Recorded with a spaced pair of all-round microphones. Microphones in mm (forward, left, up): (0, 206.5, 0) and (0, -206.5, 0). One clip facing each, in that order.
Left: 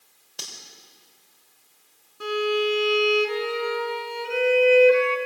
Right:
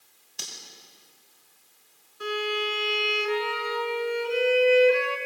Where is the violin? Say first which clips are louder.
Left 6 dB; 65° left (ahead or behind), 3 m.